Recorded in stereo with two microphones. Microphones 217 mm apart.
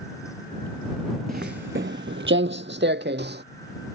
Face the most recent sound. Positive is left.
turn(degrees=-55)  # may be behind; listen again after turning